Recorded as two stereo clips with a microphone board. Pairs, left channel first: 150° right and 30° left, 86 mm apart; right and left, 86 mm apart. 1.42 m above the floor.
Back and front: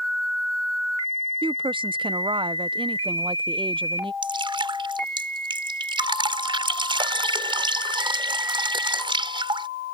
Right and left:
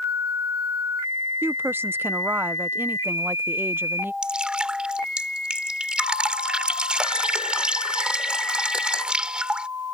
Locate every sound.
1.4 s a woman speaking: 25° left
4.2 s dripping: 10° left